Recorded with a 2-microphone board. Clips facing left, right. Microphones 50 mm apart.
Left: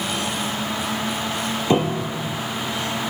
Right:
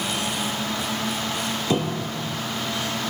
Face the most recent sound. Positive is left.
turn(degrees=30)  # may be behind; listen again after turning